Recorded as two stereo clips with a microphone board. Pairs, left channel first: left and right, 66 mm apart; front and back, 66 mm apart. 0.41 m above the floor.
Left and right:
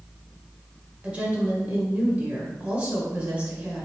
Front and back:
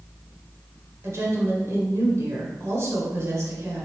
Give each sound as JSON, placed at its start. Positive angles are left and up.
{"t": 1.0, "sound": "a woman speaking", "azimuth_deg": -150, "distance_m": 1.3}